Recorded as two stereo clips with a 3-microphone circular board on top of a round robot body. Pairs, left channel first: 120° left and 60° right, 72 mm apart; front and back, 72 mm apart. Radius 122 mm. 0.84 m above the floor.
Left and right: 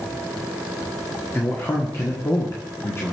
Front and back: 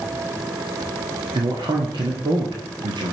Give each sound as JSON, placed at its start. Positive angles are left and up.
{"t": 1.4, "sound": "a man speaking", "azimuth_deg": 175, "distance_m": 2.5}